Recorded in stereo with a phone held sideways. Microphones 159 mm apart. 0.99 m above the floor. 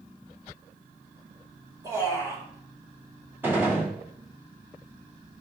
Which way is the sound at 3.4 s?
15° right (ahead or behind).